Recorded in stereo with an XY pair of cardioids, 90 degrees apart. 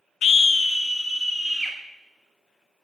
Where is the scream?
70° left, 0.6 m; by 1.8 s 15° right, 2 m.